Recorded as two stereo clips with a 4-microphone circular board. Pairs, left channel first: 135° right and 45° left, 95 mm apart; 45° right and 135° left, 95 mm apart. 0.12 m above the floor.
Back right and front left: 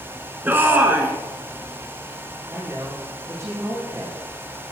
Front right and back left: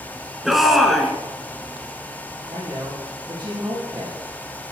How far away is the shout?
About 1.4 m.